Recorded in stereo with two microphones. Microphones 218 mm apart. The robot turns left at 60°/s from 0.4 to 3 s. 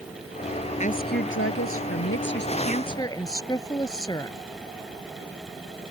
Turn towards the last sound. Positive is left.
turn(degrees=15)